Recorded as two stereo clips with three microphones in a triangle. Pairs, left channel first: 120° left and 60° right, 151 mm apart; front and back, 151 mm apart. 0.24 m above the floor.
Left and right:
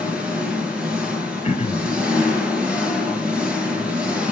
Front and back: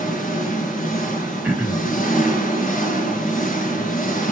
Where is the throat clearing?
100° left, 1.4 m.